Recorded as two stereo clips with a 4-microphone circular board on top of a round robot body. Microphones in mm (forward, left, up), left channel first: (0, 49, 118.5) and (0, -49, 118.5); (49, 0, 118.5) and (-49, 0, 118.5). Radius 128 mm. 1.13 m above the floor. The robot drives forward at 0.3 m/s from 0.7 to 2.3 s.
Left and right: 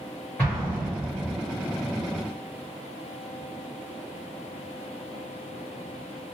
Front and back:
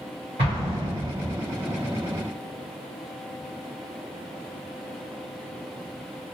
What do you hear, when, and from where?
0.4 s an explosion: 160° left, 0.9 m; by 1.3 s 165° left, 1.1 m